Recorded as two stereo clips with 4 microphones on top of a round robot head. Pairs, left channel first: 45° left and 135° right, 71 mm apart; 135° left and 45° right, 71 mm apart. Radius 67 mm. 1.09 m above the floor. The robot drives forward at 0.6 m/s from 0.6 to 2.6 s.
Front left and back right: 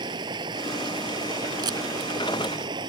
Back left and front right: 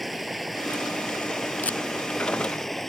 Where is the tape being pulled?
155° right.